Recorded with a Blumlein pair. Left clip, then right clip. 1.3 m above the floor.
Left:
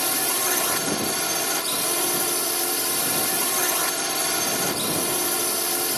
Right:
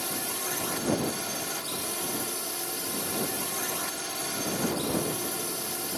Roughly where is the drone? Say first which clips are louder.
Left 8 dB; ahead left.